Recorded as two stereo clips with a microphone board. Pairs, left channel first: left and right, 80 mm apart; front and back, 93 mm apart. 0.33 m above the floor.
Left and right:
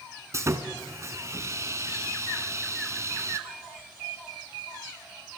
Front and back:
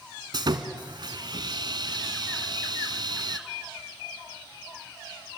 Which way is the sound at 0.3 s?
140° right.